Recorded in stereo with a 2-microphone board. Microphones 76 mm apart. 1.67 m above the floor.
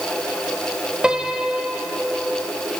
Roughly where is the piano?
Centre.